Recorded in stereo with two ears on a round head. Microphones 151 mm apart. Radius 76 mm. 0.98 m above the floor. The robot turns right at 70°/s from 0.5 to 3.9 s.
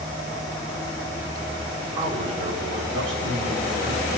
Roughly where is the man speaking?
Behind.